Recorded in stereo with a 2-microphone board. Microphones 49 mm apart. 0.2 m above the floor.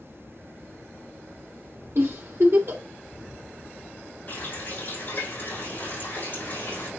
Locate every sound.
1.9 s a giggle: 60° right (ahead or behind), 3.5 m
4.3 s a running tap: 40° left (ahead or behind), 7.5 m